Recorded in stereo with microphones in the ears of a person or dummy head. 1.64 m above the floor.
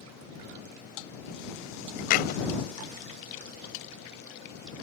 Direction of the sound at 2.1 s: 50° left (ahead or behind).